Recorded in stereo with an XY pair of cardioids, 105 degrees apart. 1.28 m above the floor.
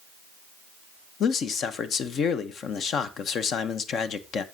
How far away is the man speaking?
About 0.7 m.